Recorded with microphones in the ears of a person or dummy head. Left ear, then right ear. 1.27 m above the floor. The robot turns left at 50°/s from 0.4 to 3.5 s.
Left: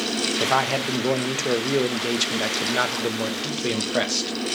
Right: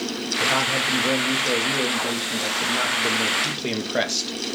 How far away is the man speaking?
About 0.6 m.